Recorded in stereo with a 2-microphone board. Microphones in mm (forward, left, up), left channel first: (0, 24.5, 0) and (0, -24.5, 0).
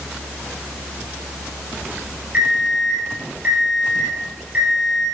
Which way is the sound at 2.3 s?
30° right (ahead or behind).